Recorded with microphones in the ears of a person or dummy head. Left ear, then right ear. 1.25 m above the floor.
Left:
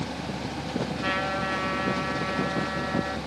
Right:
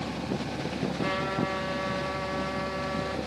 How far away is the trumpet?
About 7 m.